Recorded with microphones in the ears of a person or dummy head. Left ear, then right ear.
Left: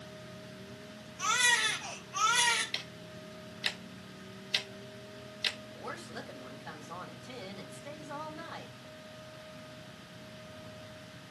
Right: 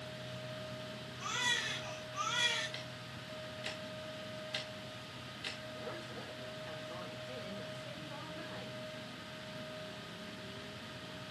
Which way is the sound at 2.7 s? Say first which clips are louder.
Left 5 dB; 25° left (ahead or behind).